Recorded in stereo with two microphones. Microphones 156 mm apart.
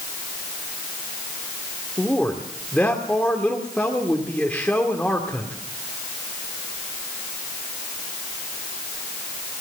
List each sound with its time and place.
2.0 s a man speaking: 10° left (ahead or behind), 2 m